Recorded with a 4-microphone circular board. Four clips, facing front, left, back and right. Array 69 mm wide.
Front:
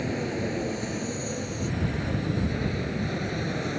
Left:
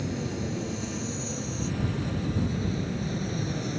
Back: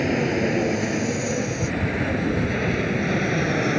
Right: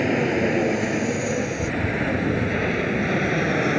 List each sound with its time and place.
0.0 s an aircraft: 115° right; by 3.8 s 120° right